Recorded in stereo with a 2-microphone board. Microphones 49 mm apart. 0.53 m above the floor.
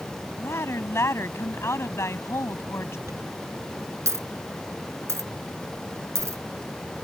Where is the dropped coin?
80° right.